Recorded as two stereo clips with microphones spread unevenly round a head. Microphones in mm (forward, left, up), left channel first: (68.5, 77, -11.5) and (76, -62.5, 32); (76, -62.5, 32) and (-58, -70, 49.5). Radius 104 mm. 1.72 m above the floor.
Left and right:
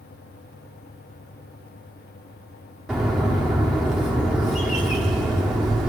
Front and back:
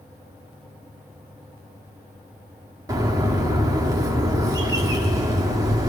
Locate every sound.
2.9 s a bird: 145° right, 1.4 m